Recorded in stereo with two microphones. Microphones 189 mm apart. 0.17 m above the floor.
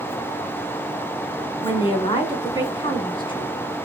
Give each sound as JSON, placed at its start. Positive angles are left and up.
{"t": 1.6, "sound": "a woman speaking", "side_deg": 25, "distance_m": 1.3}